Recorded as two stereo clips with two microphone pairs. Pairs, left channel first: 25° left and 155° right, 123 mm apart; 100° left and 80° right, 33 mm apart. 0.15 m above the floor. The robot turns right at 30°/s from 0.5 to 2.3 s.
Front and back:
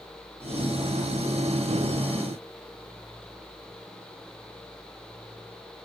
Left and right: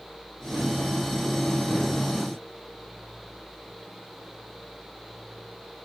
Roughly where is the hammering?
No hammering in this recording.